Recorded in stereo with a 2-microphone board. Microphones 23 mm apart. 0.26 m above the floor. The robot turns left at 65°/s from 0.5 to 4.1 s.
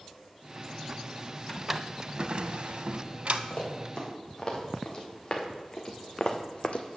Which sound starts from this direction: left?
Running footsteps, at 3.5 s.